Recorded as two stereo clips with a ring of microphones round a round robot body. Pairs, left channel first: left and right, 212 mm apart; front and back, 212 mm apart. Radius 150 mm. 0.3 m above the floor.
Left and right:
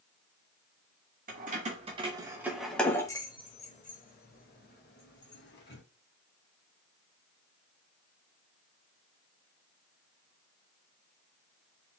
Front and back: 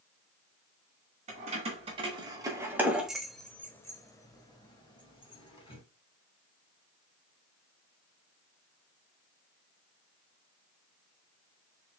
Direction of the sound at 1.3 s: 130° right.